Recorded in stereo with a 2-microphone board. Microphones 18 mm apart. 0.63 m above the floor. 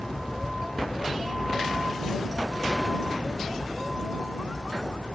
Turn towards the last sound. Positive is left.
turn(degrees=20)  # may be behind; listen again after turning